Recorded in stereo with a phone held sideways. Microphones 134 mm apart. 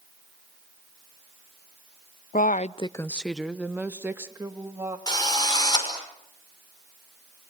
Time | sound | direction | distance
2.3 | a woman speaking | 80° left | 0.7 m
5.1 | a drill | 30° left (ahead or behind) | 5.5 m